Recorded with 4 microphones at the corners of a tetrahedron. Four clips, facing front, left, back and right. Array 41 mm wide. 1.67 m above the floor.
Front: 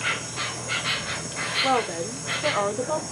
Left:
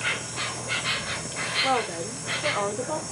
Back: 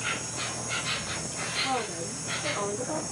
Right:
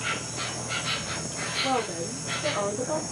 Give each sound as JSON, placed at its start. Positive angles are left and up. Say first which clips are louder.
{"t": 0.0, "sound": "an insect", "louder": "left 2 dB, front 5 dB", "azimuth_deg": 35, "distance_m": 0.7}
{"t": 1.6, "sound": "a woman speaking", "louder": "even, front 9 dB", "azimuth_deg": 20, "distance_m": 0.7}